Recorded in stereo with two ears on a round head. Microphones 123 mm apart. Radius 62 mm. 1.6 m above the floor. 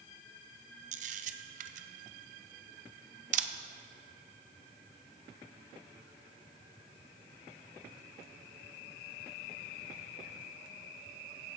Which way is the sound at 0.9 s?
60° right (ahead or behind).